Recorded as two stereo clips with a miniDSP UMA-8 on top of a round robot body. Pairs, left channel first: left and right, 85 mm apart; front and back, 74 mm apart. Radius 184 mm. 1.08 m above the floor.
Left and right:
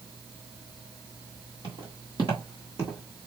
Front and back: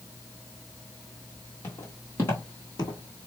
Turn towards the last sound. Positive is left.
turn(degrees=5)